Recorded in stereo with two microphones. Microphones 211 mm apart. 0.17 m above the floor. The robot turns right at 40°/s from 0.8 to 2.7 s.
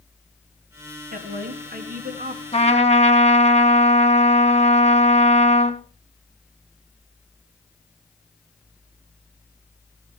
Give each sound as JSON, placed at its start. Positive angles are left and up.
{"t": 1.1, "sound": "a woman speaking", "azimuth_deg": -110, "distance_m": 1.4}
{"t": 2.5, "sound": "a trumpet", "side_deg": 30, "distance_m": 1.7}